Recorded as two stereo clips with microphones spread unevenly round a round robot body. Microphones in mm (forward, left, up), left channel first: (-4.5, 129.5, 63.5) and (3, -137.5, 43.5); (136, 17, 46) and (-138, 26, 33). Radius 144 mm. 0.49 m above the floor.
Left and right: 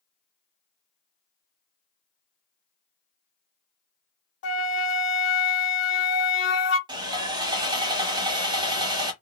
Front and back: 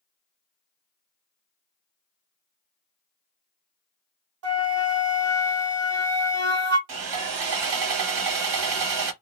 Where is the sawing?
165° right, 0.8 m.